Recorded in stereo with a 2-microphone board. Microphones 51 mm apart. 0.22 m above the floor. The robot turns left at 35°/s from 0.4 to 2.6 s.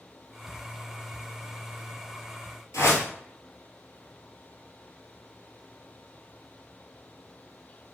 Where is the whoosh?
80° left, 1.3 m.